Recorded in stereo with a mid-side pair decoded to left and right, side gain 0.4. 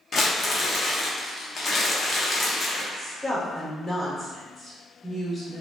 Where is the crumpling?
50° left, 0.9 m.